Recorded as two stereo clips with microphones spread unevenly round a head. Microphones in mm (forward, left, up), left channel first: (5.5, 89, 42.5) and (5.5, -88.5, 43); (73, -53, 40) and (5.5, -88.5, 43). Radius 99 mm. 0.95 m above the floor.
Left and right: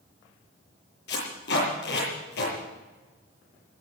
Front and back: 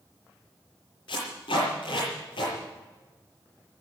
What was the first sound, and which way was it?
Tape being pulled, 60° left.